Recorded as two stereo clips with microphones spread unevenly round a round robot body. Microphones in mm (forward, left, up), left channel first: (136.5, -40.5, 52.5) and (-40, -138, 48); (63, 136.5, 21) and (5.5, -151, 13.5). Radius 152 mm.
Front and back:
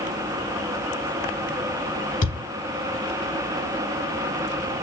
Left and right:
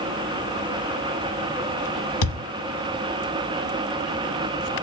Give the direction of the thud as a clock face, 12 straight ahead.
9 o'clock.